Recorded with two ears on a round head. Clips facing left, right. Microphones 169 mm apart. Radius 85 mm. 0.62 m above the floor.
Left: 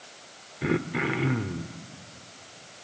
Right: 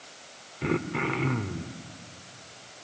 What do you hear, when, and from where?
0.6 s throat clearing: 10° left (ahead or behind), 0.9 m